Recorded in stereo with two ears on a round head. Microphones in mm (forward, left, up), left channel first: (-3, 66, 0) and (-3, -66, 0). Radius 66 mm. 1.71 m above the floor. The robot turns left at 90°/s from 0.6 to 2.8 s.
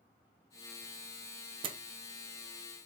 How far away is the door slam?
About 0.7 m.